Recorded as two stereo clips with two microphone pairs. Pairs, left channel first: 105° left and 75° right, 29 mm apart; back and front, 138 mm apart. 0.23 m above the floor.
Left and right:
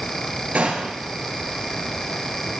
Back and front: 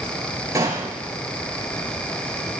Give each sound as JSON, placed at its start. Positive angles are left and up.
{"t": 0.6, "sound": "a gunshot", "azimuth_deg": -70, "distance_m": 3.0}